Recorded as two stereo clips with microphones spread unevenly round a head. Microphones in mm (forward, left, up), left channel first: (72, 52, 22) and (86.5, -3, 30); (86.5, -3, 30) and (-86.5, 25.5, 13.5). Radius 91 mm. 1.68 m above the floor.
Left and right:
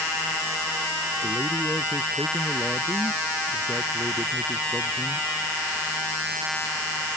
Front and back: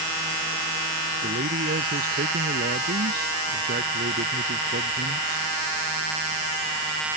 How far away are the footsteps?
No footsteps in this recording.